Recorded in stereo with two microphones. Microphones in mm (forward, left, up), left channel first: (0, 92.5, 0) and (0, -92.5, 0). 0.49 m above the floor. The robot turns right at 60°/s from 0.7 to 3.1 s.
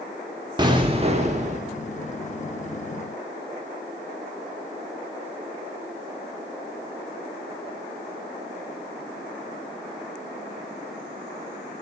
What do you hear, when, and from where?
0.6 s an explosion: 140° right, 0.9 m; by 1.6 s 85° right, 0.9 m